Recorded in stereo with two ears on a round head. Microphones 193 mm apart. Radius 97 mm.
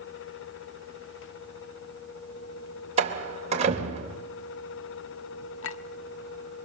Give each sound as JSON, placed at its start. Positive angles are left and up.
{"t": 3.0, "sound": "a door slam", "side_deg": -30, "distance_m": 3.0}
{"t": 5.6, "sound": "a clink", "side_deg": 65, "distance_m": 1.1}